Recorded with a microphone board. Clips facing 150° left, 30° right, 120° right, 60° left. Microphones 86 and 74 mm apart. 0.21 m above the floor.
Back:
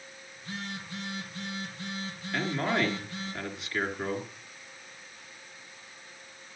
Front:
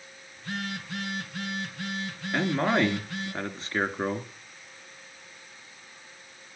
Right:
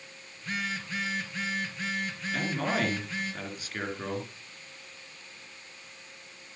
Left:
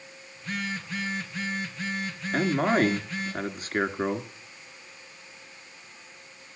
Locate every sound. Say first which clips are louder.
0.4 s a phone buzzing: front 5 dB, left 1 dB; 30° right, 3.5 m
2.3 s a man speaking: front 4 dB, left 7 dB; 20° left, 3 m